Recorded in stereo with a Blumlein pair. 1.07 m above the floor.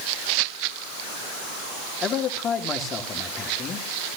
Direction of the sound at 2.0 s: 25° left.